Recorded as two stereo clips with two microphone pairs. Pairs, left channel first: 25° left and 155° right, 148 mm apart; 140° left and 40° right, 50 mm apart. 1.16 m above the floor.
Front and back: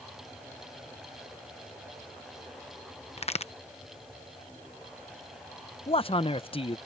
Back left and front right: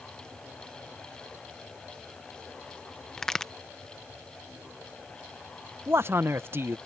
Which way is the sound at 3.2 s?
55° left.